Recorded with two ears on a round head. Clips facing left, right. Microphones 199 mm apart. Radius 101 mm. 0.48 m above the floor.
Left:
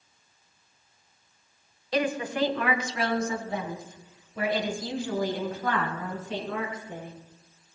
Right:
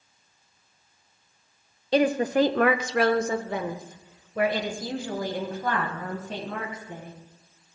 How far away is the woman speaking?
About 0.9 m.